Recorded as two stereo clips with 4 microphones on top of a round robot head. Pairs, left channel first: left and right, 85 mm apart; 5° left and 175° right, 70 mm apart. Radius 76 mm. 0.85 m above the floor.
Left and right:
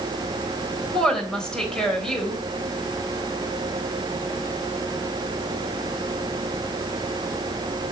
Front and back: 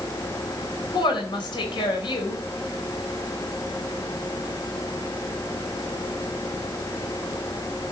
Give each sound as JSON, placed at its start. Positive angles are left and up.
{"t": 0.9, "sound": "a woman speaking", "azimuth_deg": 10, "distance_m": 4.0}